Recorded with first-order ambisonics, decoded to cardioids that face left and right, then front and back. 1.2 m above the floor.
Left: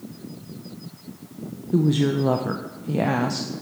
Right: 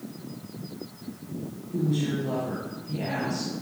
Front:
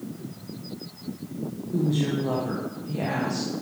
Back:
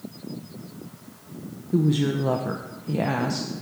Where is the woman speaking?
115° left, 0.7 m.